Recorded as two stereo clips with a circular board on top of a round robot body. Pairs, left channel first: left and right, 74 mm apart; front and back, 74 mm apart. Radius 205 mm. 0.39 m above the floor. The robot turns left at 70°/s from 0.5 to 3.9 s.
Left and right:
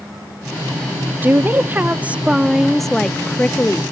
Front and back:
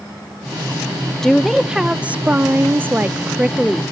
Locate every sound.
1.2 s a woman speaking: 75° right, 0.8 m; by 3.8 s 105° left, 0.8 m